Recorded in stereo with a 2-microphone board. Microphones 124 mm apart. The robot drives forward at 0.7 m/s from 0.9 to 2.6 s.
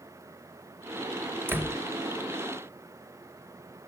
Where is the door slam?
20° right (ahead or behind), 1.1 m; by 1.8 s 15° right (ahead or behind), 1.3 m.